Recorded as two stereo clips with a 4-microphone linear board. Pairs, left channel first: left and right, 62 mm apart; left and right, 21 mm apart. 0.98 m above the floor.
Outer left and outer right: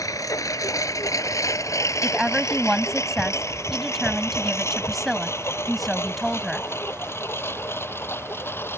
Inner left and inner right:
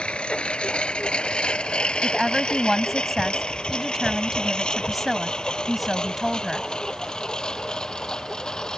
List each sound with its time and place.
0.0 s a lawn mower: 65° left (ahead or behind); by 8.8 s 35° left (ahead or behind)
2.0 s a woman speaking: centre (ahead or behind)